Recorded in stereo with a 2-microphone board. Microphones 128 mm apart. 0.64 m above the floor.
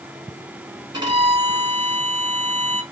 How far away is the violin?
About 1.4 m.